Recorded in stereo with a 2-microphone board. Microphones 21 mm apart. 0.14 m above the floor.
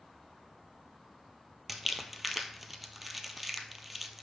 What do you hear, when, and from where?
1.7 s crumpling: 5° right (ahead or behind), 0.7 m